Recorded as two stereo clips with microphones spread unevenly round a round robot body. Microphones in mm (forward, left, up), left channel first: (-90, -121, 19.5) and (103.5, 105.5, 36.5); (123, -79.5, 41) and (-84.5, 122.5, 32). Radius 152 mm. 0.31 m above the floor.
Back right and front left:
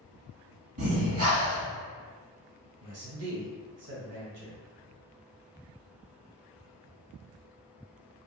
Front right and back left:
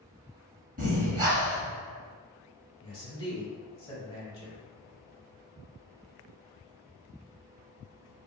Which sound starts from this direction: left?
Breathing, at 0.8 s.